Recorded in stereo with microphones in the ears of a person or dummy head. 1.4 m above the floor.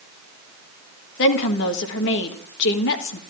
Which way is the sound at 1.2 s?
65° left (ahead or behind).